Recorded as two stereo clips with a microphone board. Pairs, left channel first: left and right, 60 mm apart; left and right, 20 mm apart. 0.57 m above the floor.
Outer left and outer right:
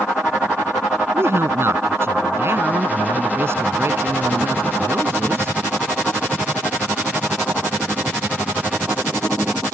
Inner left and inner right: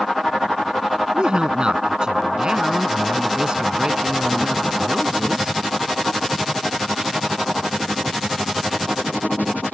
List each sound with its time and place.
1.1 s a woman speaking: 40° right (ahead or behind)